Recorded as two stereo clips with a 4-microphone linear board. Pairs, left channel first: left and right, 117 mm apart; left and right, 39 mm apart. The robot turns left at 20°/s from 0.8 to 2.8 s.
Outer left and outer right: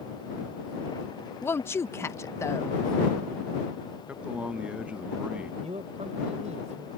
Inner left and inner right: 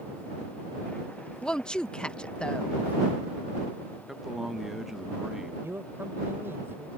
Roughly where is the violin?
No violin in this recording.